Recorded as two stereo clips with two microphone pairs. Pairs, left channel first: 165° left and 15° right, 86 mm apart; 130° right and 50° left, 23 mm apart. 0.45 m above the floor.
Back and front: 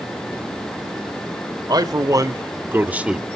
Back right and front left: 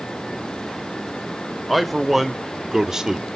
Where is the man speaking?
35° right, 1.6 m; by 3.2 s 60° left, 1.1 m.